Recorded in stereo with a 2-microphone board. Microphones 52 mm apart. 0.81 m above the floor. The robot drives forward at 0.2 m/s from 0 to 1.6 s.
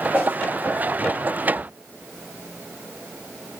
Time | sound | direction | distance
0.1 | a whoosh | 30° right (ahead or behind) | 1.3 m
1.5 | a cupboard door | 40° right (ahead or behind) | 1.1 m